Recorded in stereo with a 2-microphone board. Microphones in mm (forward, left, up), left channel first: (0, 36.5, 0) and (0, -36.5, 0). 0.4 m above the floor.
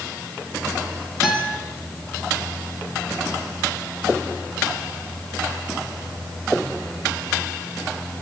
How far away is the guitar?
About 5.5 m.